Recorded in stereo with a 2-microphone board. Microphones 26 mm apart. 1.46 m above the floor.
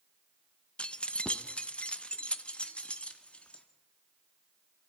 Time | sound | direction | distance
0.8 | keys jangling | 45° left (ahead or behind) | 0.7 m